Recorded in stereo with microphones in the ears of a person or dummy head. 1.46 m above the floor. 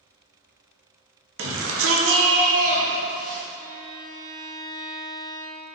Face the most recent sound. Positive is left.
turn(degrees=-60)  # may be behind; listen again after turning